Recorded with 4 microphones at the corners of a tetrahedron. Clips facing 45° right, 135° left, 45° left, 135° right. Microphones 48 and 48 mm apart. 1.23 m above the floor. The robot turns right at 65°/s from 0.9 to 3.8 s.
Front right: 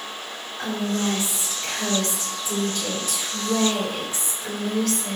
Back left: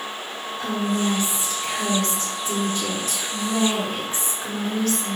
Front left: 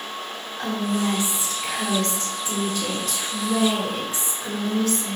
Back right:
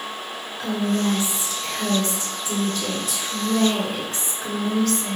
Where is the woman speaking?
5° left, 3.5 m; by 5.2 s 165° right, 3.5 m.